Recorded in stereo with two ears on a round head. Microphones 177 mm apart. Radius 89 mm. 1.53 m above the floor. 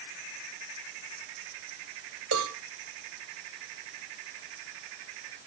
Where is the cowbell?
80° right, 2.5 m.